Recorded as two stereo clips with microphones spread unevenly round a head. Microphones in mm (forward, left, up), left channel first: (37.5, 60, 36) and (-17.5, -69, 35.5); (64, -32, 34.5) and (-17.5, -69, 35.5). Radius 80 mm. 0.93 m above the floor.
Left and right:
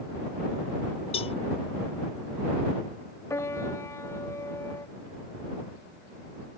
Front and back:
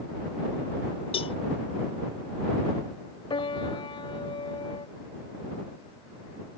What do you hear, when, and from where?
1.1 s a cowbell: 20° left
3.3 s a piano: 5° right